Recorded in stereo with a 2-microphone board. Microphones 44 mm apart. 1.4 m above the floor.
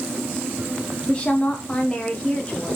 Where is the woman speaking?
25° left (ahead or behind), 1.2 m.